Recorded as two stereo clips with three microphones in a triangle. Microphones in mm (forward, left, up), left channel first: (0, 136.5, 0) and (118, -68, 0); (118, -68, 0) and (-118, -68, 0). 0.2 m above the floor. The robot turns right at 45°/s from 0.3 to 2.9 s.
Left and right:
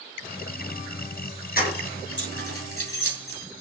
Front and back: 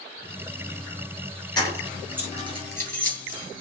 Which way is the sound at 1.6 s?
70° left.